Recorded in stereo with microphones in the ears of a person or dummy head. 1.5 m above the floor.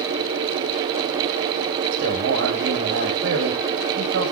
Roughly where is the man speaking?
Right.